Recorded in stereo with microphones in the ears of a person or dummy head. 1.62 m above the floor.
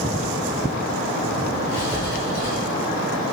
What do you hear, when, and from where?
1.7 s writing: 60° left (ahead or behind), 6 m